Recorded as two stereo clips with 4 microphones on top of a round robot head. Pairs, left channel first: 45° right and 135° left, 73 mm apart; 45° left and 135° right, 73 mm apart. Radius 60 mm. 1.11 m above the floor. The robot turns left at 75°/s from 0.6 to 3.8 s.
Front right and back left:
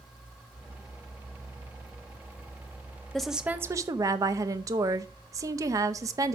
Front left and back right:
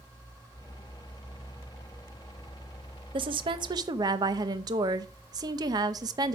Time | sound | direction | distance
3.1 | a woman speaking | 125° right | 0.9 m